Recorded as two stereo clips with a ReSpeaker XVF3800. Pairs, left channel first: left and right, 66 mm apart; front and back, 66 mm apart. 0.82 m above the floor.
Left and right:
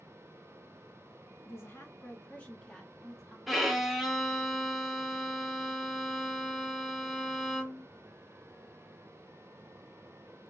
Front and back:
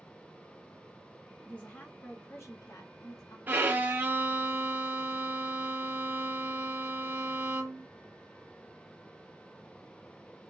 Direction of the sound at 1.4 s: 70° left.